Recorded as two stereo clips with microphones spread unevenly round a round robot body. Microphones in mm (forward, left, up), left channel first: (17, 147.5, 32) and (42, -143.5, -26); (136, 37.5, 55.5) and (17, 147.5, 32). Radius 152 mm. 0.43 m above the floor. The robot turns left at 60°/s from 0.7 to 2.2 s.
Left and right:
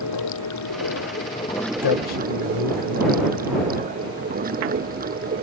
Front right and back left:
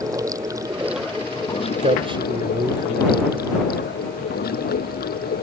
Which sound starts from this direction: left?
A man speaking, at 1.8 s.